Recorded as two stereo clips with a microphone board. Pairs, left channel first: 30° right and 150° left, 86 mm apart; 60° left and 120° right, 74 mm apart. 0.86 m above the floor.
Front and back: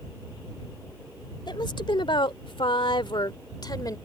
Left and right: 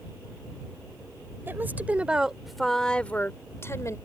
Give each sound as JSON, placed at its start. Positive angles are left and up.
{"t": 1.5, "sound": "a woman speaking", "azimuth_deg": -60}